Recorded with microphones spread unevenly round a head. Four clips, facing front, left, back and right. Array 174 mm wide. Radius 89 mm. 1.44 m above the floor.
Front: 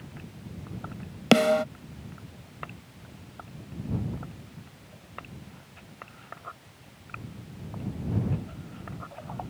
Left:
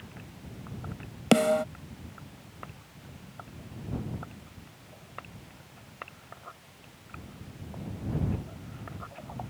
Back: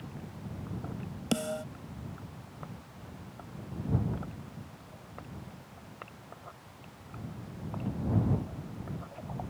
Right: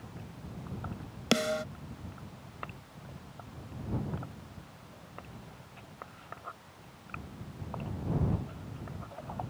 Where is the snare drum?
25° left.